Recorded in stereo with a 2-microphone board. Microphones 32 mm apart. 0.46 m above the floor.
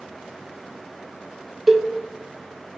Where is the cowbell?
5° right (ahead or behind), 0.9 m.